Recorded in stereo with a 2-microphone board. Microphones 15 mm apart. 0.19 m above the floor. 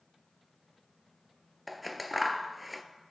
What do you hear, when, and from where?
1.7 s scissors: centre (ahead or behind), 0.5 m